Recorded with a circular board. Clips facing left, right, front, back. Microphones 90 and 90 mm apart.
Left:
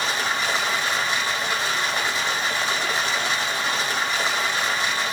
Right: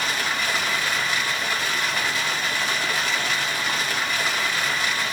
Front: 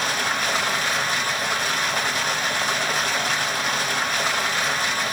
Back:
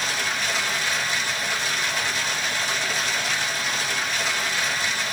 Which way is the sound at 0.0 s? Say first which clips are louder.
Left 1 dB, front 3 dB; 30° left.